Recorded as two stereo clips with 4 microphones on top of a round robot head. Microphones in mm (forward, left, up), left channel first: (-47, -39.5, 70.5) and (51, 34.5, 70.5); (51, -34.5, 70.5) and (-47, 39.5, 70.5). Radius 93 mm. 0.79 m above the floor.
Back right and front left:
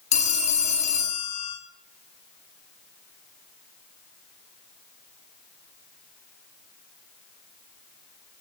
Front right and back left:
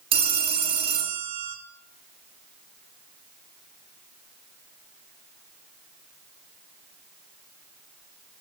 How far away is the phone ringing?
About 1.1 m.